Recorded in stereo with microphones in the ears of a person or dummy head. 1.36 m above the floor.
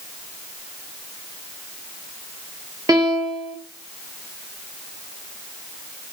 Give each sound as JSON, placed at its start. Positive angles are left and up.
{"t": 2.9, "sound": "a piano", "side_deg": -20, "distance_m": 0.6}